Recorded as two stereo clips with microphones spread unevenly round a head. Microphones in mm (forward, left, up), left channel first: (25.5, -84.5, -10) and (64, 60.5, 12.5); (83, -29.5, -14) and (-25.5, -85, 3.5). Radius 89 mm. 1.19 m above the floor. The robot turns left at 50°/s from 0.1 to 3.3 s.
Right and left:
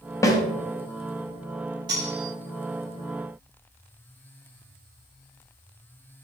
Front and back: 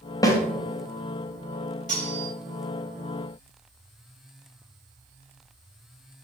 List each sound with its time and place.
0.2 s a snare drum: 35° right, 1.3 m; by 0.4 s 40° right, 1.3 m
1.9 s cutlery clinking: 140° left, 3 m; by 2.3 s 120° left, 3 m